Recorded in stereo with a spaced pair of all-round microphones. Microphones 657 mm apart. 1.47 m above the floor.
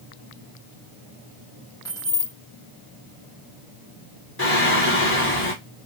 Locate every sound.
1.9 s keys jangling: 5° left (ahead or behind), 1.0 m
4.4 s singing: 20° left (ahead or behind), 1.0 m